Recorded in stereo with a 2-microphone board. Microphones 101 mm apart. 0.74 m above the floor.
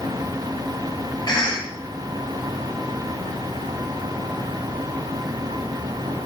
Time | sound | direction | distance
1.3 | a cough | 40° left (ahead or behind) | 0.9 m